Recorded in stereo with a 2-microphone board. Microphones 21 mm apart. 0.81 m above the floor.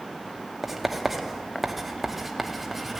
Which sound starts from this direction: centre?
Writing, at 0.6 s.